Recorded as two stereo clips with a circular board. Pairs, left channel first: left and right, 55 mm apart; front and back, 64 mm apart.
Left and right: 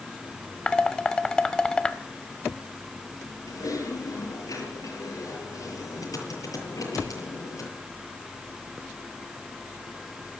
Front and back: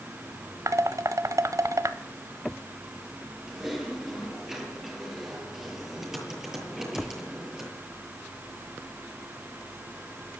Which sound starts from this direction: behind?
Dishes clattering, at 0.7 s.